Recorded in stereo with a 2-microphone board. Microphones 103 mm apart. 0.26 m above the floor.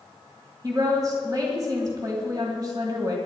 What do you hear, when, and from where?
0.6 s a woman speaking: 40° right (ahead or behind), 1.9 m